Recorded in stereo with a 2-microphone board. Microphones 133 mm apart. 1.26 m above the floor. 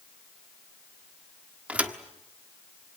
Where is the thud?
10° right (ahead or behind), 1.4 m.